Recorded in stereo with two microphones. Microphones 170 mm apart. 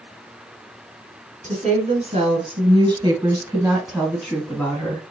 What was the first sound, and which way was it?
A woman speaking, 40° right (ahead or behind).